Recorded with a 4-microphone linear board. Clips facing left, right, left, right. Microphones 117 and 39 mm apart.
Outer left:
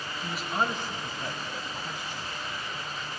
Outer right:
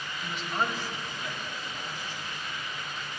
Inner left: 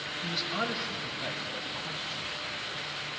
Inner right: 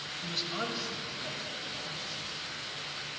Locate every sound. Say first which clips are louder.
0.2 s a man speaking: outer left 2 dB, inner left 3 dB; centre (ahead or behind), 1.4 m; by 2.3 s 60° left (ahead or behind), 2.5 m